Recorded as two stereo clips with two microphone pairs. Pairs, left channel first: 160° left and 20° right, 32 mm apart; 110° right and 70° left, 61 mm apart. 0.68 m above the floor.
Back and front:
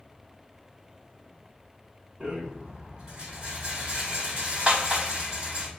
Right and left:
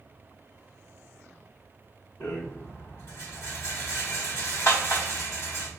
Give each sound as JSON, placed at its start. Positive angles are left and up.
{"t": 2.2, "sound": "a rattle", "azimuth_deg": -80, "distance_m": 1.8}